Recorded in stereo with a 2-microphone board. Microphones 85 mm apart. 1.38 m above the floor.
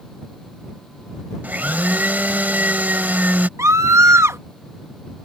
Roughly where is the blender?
Right.